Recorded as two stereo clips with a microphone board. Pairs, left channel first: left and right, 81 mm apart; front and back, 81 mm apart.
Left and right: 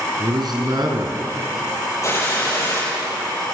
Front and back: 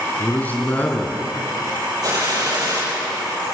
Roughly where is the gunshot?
Behind left.